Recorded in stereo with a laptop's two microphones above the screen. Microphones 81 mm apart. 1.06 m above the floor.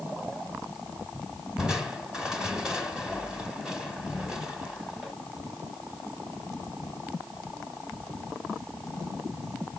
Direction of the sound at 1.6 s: 10° right (ahead or behind).